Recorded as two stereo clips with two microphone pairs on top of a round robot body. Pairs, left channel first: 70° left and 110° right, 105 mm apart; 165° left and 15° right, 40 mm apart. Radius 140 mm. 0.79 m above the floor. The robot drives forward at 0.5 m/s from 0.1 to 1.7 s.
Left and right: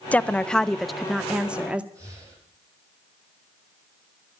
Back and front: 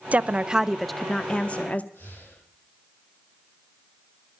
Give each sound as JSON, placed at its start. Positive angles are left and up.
{"t": 0.1, "sound": "a woman speaking", "azimuth_deg": 5, "distance_m": 0.7}
{"t": 1.9, "sound": "breathing", "azimuth_deg": -170, "distance_m": 10.0}